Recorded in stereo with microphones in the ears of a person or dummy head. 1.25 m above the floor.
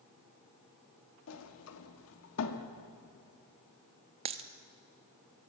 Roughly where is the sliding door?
Left.